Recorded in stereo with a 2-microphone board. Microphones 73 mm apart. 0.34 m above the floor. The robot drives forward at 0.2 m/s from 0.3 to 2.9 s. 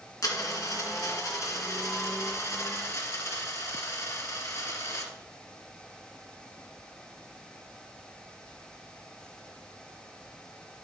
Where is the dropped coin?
55° left (ahead or behind), 2.0 m; by 5.1 s 45° left (ahead or behind), 2.5 m.